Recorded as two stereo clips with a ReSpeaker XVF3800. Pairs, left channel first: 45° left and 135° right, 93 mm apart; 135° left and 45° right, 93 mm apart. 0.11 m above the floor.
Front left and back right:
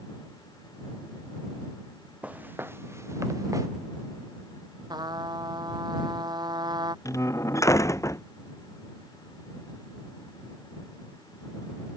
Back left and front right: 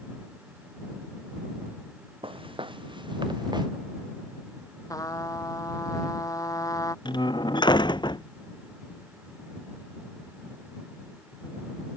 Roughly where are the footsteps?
Ahead right.